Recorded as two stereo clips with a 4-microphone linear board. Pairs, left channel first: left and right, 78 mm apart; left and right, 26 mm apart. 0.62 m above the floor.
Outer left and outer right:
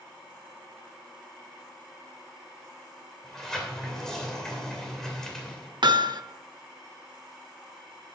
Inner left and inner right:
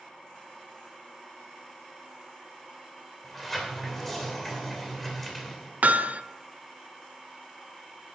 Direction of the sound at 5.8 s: 65° right (ahead or behind).